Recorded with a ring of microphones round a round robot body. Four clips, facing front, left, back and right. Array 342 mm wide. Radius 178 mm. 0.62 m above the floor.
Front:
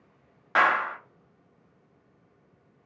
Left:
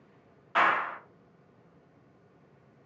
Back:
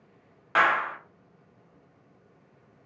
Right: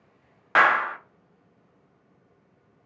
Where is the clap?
85° right, 0.7 m.